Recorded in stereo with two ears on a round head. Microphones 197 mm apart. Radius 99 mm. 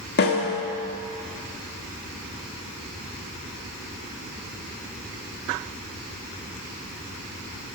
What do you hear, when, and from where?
0.2 s a snare drum: 50° left (ahead or behind), 1.6 m